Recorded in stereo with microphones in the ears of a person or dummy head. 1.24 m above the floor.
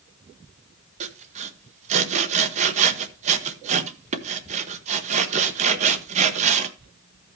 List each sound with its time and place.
1.0 s sawing: 40° right (ahead or behind), 1.2 m